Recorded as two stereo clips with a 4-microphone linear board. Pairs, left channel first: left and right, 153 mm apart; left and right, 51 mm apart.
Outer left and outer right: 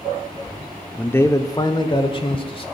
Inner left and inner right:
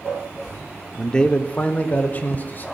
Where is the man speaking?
5° left (ahead or behind), 0.7 m; by 2.6 s 35° left (ahead or behind), 1.9 m.